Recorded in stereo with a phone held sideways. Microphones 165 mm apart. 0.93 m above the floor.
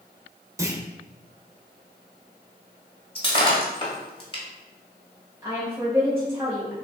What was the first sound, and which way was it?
A clunk, 20° right (ahead or behind).